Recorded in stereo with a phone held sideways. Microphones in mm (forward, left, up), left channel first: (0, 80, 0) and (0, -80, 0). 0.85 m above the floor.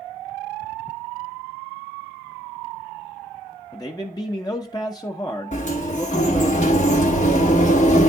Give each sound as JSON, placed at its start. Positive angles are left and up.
{"t": 3.7, "sound": "a man speaking", "side_deg": 25, "distance_m": 0.7}
{"t": 5.5, "sound": "a sliding door", "side_deg": 50, "distance_m": 1.2}